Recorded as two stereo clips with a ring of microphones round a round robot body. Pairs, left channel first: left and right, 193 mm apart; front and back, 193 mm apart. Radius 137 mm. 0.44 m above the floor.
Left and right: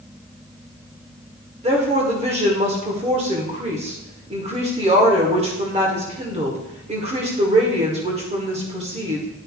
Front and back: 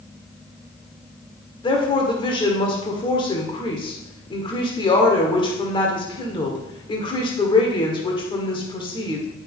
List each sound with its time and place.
1.6 s a woman speaking: 50° right, 1.4 m